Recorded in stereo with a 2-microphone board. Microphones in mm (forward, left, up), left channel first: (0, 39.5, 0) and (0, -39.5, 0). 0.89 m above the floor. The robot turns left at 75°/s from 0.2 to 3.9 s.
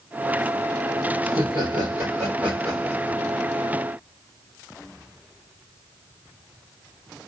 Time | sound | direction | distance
1.2 | laughter | 70° right | 3 m